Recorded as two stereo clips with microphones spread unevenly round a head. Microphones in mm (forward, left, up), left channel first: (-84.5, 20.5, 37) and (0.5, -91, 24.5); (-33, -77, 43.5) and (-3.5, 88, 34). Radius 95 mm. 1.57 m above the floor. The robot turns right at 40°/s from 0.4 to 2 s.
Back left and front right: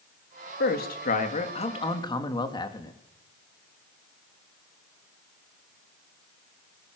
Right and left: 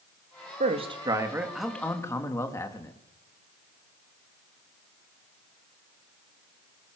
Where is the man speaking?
130° left, 3 m; by 2.9 s 175° right, 3 m.